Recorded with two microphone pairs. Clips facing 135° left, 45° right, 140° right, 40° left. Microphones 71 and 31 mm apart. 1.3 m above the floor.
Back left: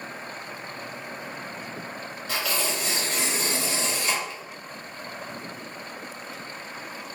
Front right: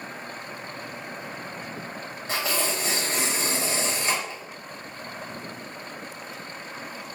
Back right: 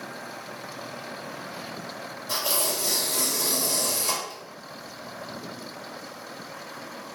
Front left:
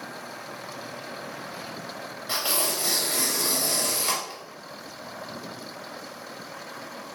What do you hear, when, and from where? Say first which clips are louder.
2.3 s tearing paper: front right 1 dB, even; 5° left, 1.2 m